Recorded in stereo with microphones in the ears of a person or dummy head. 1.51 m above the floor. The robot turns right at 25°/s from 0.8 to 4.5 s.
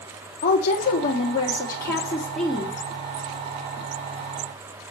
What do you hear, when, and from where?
0.4 s a woman speaking: 135° left, 3 m; by 2.8 s 175° right, 3 m